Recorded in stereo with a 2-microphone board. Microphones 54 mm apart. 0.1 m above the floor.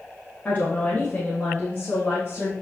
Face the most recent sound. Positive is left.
turn(degrees=35)  # may be behind; listen again after turning